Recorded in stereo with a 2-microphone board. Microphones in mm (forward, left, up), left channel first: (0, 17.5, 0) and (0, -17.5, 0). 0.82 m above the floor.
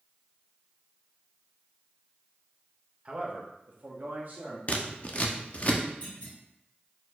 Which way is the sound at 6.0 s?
45° left (ahead or behind).